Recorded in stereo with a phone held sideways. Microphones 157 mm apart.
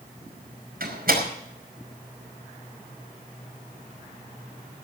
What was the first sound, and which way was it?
A door slam, 70° right (ahead or behind).